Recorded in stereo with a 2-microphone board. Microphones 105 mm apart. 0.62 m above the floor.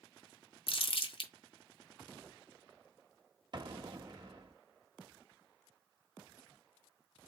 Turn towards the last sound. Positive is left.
turn(degrees=-50)  # may be behind; listen again after turning